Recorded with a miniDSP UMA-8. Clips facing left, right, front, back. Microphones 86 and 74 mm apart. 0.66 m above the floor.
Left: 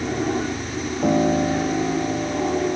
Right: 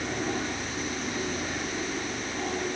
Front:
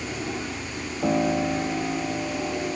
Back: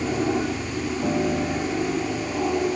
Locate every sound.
0.0 s an aircraft: 140° left; by 2.8 s 135° left
1.0 s a piano: 75° left